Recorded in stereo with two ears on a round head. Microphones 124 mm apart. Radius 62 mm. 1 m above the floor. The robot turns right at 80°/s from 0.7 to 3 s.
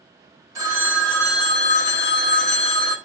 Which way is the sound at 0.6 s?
25° right.